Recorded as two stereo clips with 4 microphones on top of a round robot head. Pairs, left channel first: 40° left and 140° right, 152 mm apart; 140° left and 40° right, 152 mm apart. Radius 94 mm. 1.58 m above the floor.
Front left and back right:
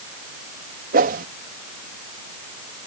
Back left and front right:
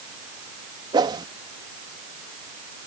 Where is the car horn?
I don't hear a car horn.